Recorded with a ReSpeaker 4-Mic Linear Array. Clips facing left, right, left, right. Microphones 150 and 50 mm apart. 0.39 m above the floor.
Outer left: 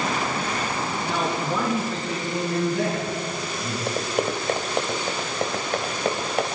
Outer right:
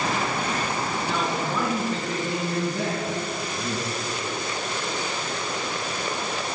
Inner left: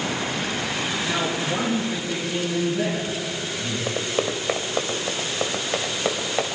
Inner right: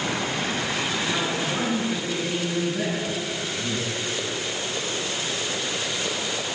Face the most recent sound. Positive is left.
turn(degrees=60)  # may be behind; listen again after turning